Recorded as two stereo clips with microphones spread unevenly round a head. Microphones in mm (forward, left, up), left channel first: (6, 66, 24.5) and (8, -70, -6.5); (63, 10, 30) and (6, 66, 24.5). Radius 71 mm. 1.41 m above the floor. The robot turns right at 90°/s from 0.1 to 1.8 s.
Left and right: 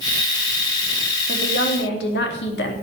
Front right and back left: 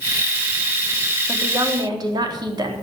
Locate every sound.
1.3 s a woman speaking: 60° left, 3.5 m; by 2.7 s 105° left, 3.5 m